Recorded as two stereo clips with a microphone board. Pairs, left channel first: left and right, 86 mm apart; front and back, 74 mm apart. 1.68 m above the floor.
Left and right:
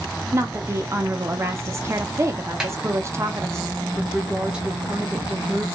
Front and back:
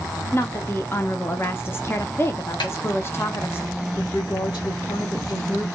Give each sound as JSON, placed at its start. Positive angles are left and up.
{"t": 0.3, "sound": "a woman speaking", "azimuth_deg": -50, "distance_m": 0.6}
{"t": 2.6, "sound": "a snare drum", "azimuth_deg": -5, "distance_m": 0.9}
{"t": 4.0, "sound": "a woman speaking", "azimuth_deg": -10, "distance_m": 1.3}